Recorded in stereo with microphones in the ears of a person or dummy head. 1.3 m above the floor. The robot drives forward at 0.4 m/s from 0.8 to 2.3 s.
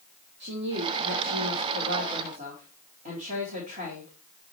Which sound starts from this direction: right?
A woman speaking, at 0.4 s.